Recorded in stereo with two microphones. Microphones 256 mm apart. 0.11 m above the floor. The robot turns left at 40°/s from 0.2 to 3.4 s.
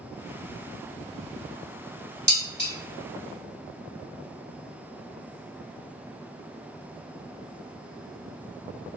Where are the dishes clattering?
40° right (ahead or behind), 1.0 m; by 2.7 s 45° right (ahead or behind), 1.0 m.